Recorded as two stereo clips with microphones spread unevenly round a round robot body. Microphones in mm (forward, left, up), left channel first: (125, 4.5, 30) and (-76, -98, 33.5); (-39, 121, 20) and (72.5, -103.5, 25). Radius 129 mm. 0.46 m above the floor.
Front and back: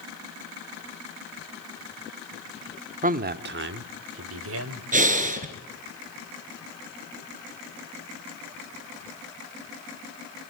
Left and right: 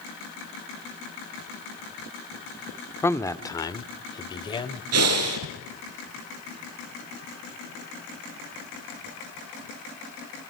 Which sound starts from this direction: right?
Breathing, at 4.9 s.